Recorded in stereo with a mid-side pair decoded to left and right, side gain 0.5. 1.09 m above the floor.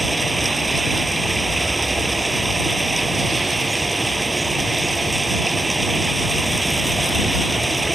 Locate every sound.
0.0 s running water: 15° right